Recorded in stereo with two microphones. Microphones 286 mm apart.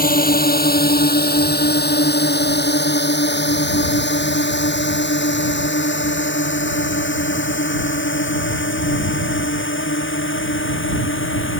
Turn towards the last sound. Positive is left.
turn(degrees=40)  # may be behind; listen again after turning